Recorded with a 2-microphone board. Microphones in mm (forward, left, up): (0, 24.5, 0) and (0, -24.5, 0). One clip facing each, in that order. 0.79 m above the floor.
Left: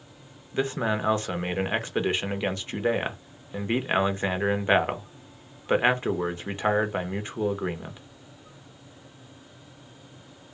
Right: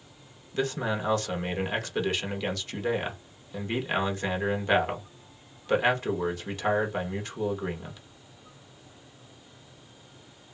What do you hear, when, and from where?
0.5 s a man speaking: 25° left (ahead or behind), 0.7 m